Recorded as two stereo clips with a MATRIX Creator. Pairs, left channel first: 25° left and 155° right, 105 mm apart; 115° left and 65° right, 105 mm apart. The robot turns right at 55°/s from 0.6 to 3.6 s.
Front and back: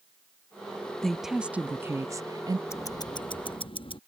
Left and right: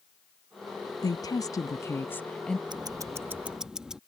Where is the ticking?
35° right; by 4.0 s 15° left.